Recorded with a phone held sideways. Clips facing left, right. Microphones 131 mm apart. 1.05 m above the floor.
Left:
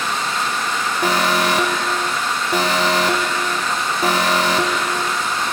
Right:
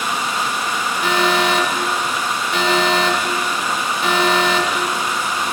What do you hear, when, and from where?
0.0 s running water: 15° right (ahead or behind), 1.1 m
1.0 s an alarm: 40° left (ahead or behind), 0.9 m